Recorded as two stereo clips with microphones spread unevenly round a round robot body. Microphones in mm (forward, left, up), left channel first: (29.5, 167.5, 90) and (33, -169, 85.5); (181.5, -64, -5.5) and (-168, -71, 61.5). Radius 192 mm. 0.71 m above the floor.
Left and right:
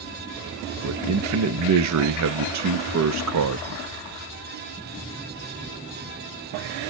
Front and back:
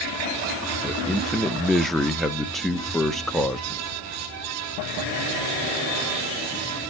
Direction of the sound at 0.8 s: 80° right.